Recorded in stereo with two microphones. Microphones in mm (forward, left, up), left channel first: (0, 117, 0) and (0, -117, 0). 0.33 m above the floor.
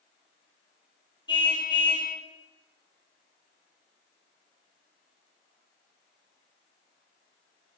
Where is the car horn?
20° left (ahead or behind), 5 m.